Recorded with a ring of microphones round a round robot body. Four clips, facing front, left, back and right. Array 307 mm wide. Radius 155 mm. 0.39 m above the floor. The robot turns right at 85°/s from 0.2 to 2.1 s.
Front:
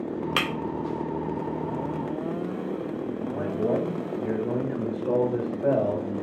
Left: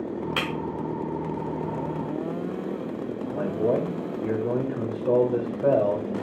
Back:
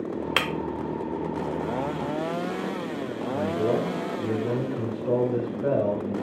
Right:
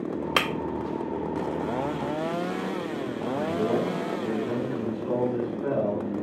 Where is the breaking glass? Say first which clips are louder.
Right 5 dB, back 1 dB; 105° right, 0.6 m; by 0.5 s 95° right, 0.6 m.